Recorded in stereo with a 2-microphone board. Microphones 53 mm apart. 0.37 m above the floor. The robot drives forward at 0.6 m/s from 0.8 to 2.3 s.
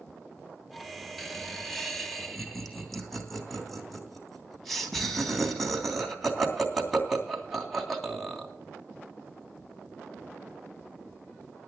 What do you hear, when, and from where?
1.2 s laughter: centre (ahead or behind), 2 m